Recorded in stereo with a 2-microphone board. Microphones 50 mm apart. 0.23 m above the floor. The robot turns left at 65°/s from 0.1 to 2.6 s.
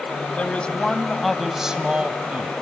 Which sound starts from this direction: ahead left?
A man speaking, at 0.4 s.